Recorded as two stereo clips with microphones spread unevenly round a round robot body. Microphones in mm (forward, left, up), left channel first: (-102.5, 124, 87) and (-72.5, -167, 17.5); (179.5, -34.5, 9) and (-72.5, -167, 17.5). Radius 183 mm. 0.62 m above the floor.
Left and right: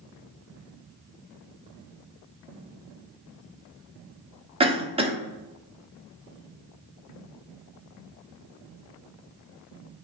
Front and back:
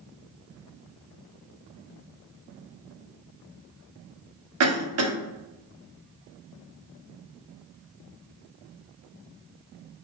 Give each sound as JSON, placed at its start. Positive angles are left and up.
{"t": 4.6, "sound": "a cough", "azimuth_deg": -140, "distance_m": 1.0}